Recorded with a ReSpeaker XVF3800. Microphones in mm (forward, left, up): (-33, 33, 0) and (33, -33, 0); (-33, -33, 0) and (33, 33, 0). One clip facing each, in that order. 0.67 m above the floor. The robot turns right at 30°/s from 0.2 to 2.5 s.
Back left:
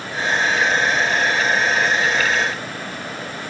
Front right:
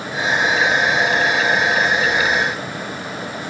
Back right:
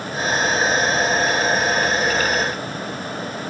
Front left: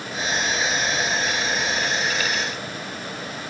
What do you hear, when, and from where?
Only background noise.